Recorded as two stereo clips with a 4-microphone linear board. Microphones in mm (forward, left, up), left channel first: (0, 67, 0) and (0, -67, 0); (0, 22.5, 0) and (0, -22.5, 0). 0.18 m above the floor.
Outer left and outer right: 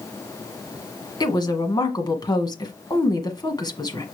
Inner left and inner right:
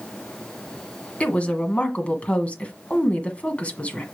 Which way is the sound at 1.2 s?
30° left (ahead or behind).